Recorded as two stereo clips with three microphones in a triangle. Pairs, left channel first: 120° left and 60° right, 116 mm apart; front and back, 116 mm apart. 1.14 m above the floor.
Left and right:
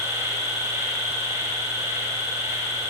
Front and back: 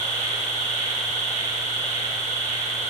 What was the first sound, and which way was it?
An insect, 5° left.